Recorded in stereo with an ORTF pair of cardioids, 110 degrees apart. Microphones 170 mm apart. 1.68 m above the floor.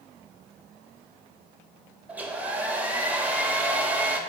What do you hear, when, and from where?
2.1 s a hair dryer: 10° right, 0.6 m